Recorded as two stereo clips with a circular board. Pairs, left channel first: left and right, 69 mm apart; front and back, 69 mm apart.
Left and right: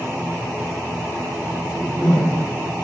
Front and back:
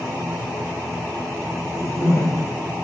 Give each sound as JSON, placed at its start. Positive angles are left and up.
{"t": 1.6, "sound": "a whoosh", "azimuth_deg": 170, "distance_m": 4.0}